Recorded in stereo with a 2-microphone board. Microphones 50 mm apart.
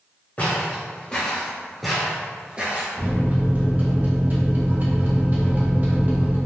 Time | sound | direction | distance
0.4 | footsteps | 35° left (ahead or behind) | 1.6 m
3.0 | a microwave | 35° right (ahead or behind) | 0.6 m